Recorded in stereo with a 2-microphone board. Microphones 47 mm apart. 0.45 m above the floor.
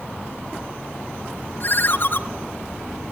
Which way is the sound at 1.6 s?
45° left (ahead or behind).